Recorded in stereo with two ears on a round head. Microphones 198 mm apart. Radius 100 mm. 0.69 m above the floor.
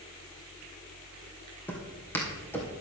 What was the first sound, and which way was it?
Footsteps, 10° left (ahead or behind).